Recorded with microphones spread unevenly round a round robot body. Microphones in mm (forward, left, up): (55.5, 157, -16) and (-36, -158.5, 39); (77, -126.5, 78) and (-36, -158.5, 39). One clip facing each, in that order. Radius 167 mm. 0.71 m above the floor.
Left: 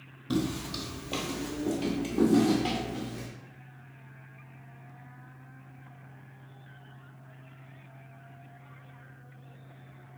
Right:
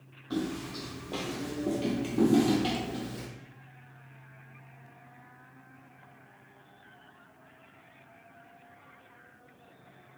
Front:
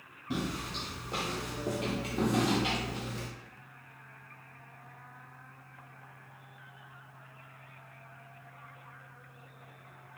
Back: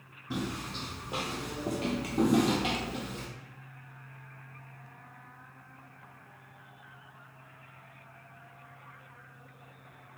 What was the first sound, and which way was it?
Footsteps, 70° left.